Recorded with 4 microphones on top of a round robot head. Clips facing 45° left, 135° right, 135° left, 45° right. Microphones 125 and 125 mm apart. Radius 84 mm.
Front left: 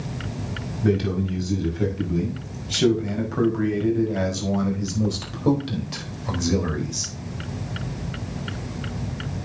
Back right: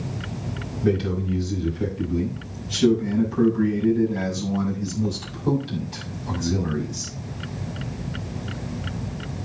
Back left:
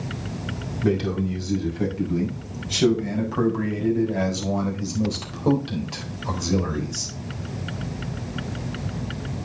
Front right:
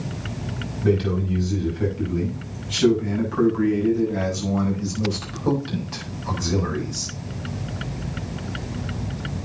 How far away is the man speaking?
About 6 m.